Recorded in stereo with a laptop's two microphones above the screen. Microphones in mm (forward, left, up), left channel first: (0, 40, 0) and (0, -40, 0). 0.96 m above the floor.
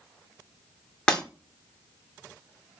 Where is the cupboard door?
No cupboard door in this recording.